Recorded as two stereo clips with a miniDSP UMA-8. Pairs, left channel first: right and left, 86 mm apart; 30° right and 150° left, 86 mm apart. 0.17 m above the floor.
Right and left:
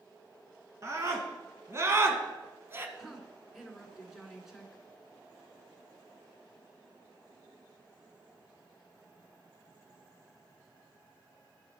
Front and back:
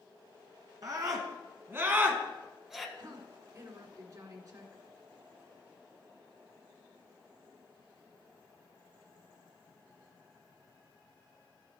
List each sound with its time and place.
0.8 s a scream: 130° left, 1.6 m; by 2.9 s 60° left, 1.2 m
3.0 s a woman speaking: 175° left, 1.9 m